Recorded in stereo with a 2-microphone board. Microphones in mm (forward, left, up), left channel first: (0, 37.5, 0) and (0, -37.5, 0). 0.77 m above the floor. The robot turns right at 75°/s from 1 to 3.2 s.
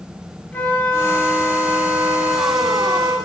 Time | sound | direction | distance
0.5 | a flute | 160° left | 2 m